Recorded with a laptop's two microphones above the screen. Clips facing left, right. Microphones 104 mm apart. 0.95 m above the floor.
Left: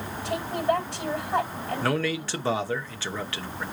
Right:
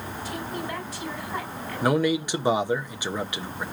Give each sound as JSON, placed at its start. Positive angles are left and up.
{"t": 0.2, "sound": "a woman speaking", "side_deg": 70, "distance_m": 5.0}
{"t": 1.8, "sound": "a man speaking", "side_deg": -15, "distance_m": 0.9}